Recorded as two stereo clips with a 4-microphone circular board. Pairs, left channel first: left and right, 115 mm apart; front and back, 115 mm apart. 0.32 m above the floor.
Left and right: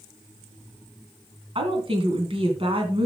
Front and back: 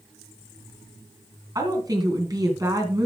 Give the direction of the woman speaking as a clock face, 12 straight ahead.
4 o'clock.